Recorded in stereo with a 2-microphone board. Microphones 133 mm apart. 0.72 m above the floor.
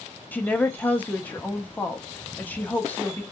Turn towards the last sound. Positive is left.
turn(degrees=10)  # may be behind; listen again after turning